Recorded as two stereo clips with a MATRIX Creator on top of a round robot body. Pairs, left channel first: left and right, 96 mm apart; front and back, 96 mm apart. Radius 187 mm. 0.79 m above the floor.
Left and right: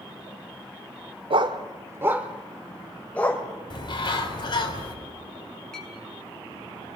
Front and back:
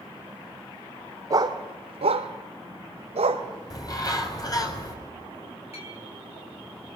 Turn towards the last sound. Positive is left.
turn(degrees=5)